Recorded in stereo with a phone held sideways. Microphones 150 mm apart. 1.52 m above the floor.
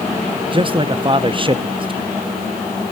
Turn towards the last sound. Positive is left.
turn(degrees=-35)  # may be behind; listen again after turning